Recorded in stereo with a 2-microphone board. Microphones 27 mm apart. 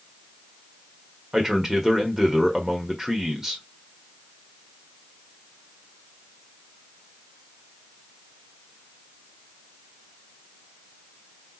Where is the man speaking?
20° right (ahead or behind), 1.3 m.